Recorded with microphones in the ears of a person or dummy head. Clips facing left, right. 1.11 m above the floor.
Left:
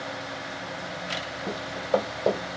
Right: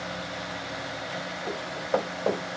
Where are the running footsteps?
35° left (ahead or behind), 1.8 m; by 2.6 s 15° left (ahead or behind), 1.6 m.